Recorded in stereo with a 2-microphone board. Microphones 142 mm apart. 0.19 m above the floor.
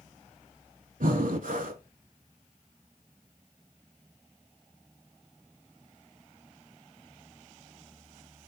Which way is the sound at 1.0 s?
75° right (ahead or behind).